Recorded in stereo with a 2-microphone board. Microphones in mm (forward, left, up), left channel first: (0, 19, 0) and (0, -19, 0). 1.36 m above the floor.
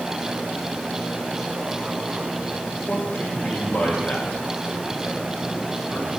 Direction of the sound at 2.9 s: 60° left (ahead or behind).